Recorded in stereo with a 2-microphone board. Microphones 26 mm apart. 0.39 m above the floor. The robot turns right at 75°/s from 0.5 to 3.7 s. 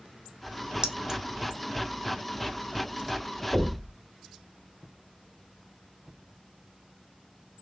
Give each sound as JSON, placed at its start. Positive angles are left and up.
{"t": 0.8, "sound": "keys jangling", "side_deg": -30, "distance_m": 0.6}
{"t": 3.5, "sound": "knocking", "side_deg": -40, "distance_m": 1.3}